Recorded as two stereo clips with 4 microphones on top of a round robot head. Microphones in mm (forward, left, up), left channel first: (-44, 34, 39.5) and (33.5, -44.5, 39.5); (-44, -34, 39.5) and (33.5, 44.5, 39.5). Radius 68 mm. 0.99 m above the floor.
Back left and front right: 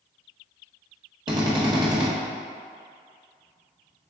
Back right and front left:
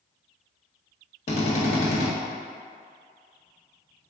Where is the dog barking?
I don't hear a dog barking.